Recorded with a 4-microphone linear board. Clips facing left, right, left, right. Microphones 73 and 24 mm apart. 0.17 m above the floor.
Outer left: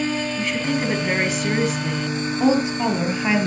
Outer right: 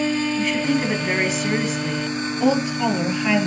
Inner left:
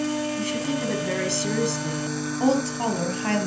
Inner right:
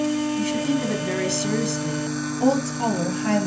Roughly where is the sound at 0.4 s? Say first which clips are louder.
Outer right 2 dB, inner right 3 dB; centre.